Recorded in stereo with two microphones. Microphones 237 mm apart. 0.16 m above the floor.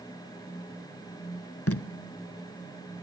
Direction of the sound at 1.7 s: 70° left (ahead or behind).